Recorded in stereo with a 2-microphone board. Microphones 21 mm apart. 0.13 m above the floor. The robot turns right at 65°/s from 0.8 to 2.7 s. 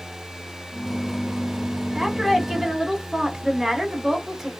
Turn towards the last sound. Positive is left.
turn(degrees=-15)  # may be behind; listen again after turning